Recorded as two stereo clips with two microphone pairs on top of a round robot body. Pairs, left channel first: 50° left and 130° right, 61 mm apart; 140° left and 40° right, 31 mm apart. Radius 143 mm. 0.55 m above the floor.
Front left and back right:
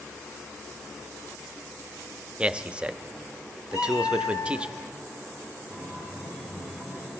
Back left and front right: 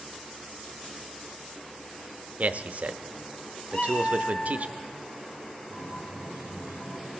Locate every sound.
2.4 s a man speaking: 55° right, 0.8 m
3.7 s a cat meowing: 90° left, 0.6 m
5.7 s a guitar: 5° right, 8.5 m